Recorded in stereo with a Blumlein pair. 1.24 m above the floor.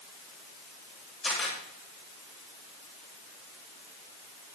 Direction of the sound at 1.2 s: 15° left.